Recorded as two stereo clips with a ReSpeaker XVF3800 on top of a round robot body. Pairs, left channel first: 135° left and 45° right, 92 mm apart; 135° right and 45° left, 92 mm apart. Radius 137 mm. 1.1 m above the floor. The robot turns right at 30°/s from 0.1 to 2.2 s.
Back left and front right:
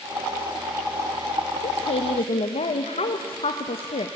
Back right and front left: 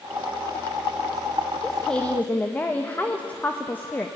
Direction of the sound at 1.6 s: 135° left.